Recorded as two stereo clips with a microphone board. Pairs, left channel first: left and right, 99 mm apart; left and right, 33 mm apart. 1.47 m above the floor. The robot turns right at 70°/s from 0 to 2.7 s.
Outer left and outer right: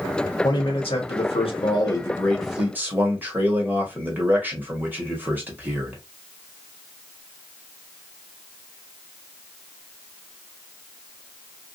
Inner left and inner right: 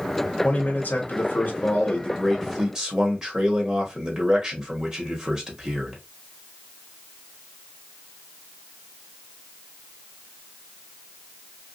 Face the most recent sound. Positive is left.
turn(degrees=-160)